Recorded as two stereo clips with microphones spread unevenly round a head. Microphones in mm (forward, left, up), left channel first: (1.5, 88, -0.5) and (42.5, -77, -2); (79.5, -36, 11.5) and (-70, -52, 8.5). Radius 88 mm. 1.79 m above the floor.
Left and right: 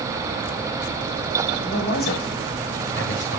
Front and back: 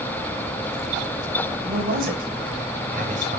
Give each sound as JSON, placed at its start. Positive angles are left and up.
{"t": 1.6, "sound": "a man speaking", "azimuth_deg": 145, "distance_m": 7.0}